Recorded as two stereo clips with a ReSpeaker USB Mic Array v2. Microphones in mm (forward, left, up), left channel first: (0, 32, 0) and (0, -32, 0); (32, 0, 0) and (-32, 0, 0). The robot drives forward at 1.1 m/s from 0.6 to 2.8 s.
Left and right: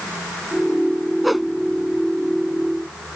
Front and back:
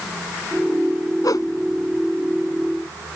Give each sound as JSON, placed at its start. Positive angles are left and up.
{"t": 1.2, "sound": "a whoosh", "azimuth_deg": 0}